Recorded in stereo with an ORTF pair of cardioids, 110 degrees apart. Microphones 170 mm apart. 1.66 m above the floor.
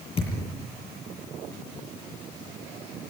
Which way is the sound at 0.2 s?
35° left.